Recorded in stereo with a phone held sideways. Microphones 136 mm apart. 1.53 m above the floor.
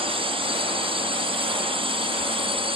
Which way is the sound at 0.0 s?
45° right (ahead or behind).